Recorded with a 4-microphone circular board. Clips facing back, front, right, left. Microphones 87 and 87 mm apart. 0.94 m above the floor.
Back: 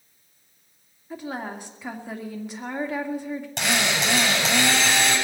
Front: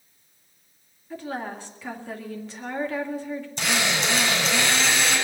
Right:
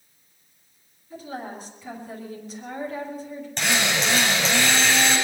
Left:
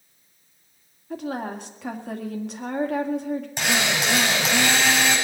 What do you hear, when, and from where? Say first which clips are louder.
1.1 s a woman speaking: even, left 5 dB; 105° left, 2 m
3.6 s a drill: back 1 dB, right 2 dB; 175° left, 8 m